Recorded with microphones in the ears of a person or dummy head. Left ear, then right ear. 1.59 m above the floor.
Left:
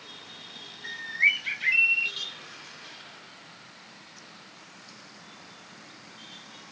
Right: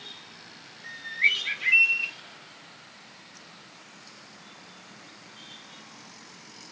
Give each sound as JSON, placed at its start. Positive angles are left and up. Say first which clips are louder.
{"t": 0.8, "sound": "a bird", "louder": "left 1 dB", "side_deg": 5, "distance_m": 2.5}